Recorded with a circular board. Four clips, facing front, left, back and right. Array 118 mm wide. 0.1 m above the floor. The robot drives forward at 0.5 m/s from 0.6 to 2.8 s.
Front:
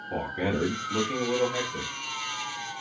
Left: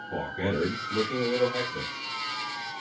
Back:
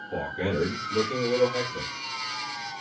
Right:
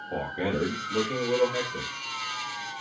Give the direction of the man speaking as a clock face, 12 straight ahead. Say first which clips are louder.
Even, even; 12 o'clock.